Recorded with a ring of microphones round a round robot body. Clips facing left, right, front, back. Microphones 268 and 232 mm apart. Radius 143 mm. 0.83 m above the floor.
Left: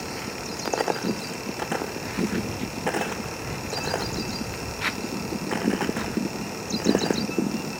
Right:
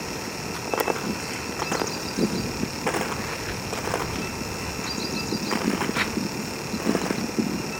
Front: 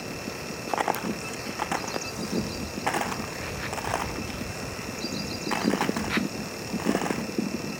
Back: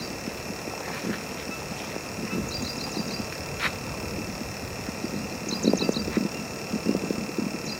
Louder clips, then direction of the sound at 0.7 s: Even, front 5 dB; 5° right.